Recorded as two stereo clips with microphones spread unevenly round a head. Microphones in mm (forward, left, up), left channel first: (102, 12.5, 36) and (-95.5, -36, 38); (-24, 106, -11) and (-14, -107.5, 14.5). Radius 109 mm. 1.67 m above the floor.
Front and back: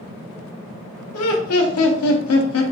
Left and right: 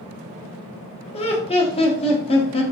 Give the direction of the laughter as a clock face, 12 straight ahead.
11 o'clock.